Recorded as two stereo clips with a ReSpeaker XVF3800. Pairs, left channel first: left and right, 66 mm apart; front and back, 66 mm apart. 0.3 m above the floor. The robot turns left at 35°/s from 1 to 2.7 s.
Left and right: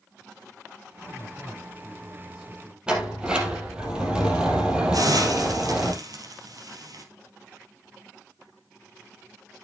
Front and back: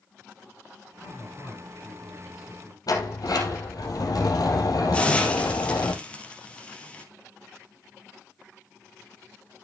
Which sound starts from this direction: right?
A hiss, at 4.9 s.